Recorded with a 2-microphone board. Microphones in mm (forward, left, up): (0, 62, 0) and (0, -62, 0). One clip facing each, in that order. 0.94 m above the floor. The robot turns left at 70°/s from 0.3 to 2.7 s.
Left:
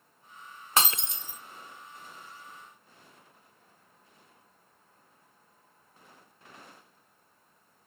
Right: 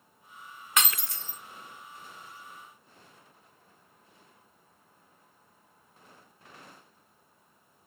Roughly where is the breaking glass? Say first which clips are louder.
Left 2 dB; ahead left.